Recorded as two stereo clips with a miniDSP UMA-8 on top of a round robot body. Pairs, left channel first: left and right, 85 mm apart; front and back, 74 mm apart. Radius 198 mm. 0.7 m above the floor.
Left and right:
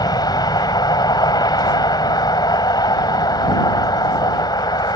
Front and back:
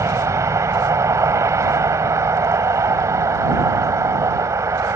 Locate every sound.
0.0 s a vehicle: 130° left